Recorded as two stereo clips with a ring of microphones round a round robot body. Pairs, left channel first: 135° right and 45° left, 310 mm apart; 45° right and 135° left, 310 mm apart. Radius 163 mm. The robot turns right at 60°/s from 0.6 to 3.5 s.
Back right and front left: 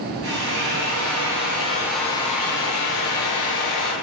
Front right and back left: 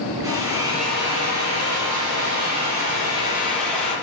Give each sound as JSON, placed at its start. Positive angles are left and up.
{"t": 0.2, "sound": "a drill", "azimuth_deg": 55, "distance_m": 8.5}